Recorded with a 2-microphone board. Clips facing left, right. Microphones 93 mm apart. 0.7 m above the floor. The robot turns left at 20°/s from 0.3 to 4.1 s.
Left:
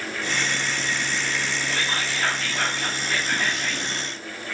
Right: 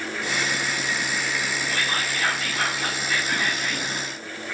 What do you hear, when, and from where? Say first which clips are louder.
1.7 s whispering: even; 110° left, 6 m; by 3.9 s 65° left, 6 m